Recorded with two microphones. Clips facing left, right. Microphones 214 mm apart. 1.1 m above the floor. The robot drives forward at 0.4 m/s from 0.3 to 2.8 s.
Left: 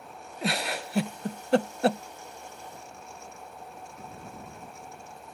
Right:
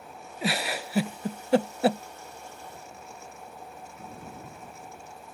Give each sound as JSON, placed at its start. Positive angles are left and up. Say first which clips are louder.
{"t": 0.4, "sound": "a giggle", "louder": "right 1 dB", "side_deg": -5}